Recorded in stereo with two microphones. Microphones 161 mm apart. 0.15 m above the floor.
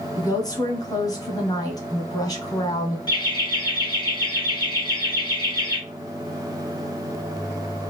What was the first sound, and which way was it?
A woman speaking, 25° left (ahead or behind).